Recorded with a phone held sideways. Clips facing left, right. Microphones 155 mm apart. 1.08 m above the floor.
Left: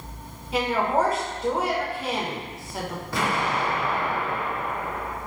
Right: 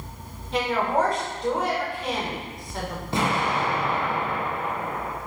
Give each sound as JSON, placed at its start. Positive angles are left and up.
{"t": 0.5, "sound": "a woman speaking", "side_deg": 5, "distance_m": 1.4}
{"t": 3.1, "sound": "an explosion", "side_deg": -25, "distance_m": 0.8}